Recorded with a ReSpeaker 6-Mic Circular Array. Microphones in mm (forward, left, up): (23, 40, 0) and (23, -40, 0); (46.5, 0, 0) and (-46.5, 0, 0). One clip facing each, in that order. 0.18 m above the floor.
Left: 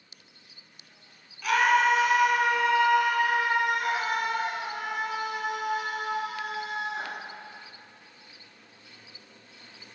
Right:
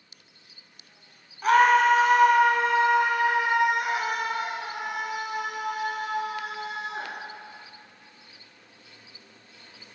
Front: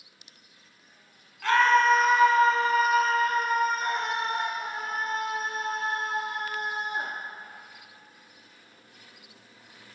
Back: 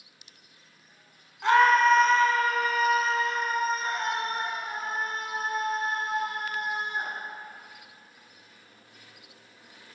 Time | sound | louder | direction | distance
1.4 | a scream | right 4 dB, back 1 dB | 120° right | 1.6 m